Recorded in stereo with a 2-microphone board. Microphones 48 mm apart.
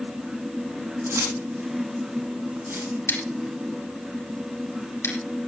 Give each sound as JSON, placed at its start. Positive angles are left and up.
{"t": 1.1, "sound": "keys jangling", "side_deg": -65, "distance_m": 6.0}
{"t": 3.1, "sound": "scissors", "side_deg": 75, "distance_m": 3.5}